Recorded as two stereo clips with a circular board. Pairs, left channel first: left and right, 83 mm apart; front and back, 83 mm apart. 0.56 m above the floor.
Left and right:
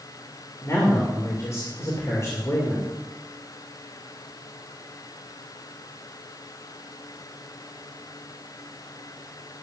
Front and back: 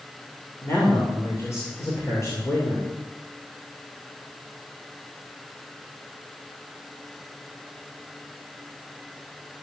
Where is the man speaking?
45° left, 2.5 m.